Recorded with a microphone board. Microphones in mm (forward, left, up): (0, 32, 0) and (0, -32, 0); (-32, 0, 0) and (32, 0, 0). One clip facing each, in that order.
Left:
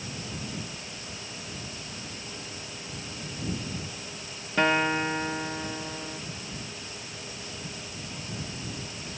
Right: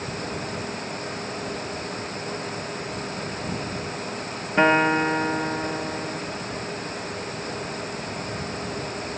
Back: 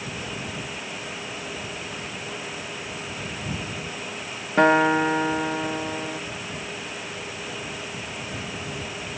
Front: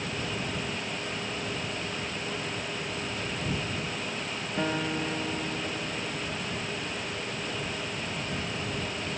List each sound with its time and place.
4.6 s a guitar: 155° right